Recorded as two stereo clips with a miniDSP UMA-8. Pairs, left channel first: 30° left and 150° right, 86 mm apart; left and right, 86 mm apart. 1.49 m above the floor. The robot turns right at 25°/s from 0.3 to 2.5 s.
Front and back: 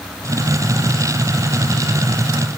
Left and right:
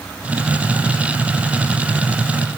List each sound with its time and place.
Only background noise.